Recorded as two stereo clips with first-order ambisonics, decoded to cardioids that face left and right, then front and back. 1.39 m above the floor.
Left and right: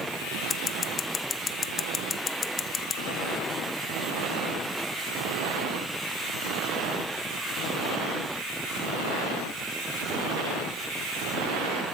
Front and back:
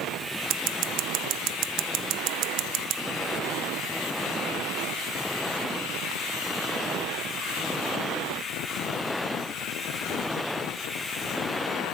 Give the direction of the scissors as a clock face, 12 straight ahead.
7 o'clock.